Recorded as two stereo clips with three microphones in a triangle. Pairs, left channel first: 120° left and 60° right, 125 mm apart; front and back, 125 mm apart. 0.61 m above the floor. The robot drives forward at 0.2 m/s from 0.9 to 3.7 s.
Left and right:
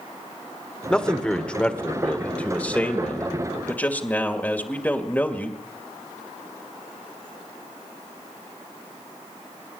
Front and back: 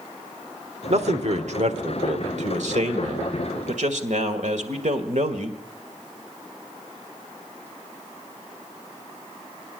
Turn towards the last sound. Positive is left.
turn(degrees=-165)